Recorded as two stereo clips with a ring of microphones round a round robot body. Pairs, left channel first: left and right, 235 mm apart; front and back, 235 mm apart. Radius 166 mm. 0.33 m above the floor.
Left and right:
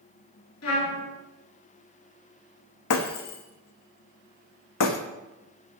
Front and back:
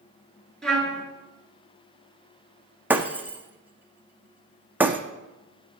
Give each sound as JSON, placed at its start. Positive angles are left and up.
{"t": 0.6, "sound": "a trumpet", "azimuth_deg": 90, "distance_m": 6.5}
{"t": 2.9, "sound": "breaking glass", "azimuth_deg": 95, "distance_m": 1.4}